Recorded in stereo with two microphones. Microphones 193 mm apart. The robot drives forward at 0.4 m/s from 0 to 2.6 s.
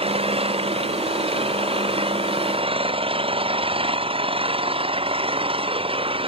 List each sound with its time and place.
0.0 s an engine running: 30° right (ahead or behind); by 6.3 s 25° right (ahead or behind)